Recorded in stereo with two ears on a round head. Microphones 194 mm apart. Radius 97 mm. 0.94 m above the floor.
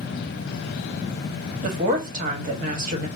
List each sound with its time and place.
1.6 s a woman speaking: 40° right (ahead or behind), 1.5 m